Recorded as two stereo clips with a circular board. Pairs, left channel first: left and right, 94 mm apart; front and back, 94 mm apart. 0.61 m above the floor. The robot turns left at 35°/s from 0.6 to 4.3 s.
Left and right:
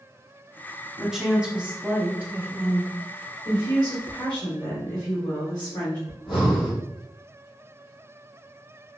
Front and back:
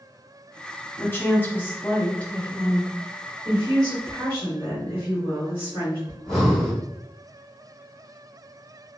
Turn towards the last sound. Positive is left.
turn(degrees=80)